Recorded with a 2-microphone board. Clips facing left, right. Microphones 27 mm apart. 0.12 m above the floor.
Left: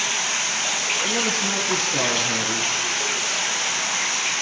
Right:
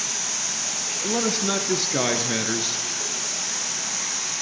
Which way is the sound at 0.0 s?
50° left (ahead or behind).